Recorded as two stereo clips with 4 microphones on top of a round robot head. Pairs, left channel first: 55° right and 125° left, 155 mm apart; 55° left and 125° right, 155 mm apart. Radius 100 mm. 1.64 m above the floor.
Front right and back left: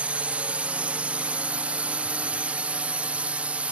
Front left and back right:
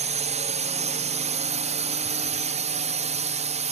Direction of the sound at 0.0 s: 155° right.